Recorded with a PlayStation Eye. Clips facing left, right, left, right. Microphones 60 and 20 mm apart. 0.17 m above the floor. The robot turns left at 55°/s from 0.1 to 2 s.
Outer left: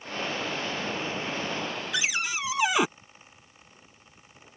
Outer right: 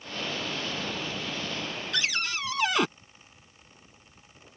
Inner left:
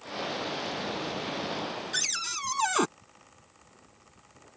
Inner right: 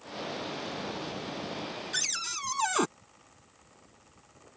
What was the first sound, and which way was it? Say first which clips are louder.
A cupboard door: even, inner left 1 dB; 10° left (ahead or behind).